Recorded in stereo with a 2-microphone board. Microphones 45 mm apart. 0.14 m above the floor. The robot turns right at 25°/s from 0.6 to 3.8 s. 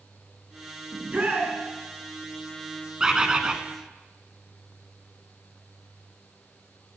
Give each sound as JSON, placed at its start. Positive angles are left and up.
{"t": 0.9, "sound": "a shout", "side_deg": -35, "distance_m": 1.3}
{"t": 3.0, "sound": "a bird", "side_deg": -15, "distance_m": 0.8}